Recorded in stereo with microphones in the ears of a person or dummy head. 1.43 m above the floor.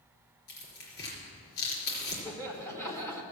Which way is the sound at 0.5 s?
75° left (ahead or behind).